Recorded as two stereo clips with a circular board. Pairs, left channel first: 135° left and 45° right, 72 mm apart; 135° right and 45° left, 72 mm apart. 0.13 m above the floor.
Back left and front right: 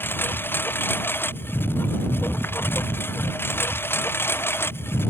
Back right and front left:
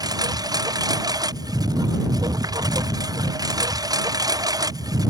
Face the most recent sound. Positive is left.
turn(degrees=75)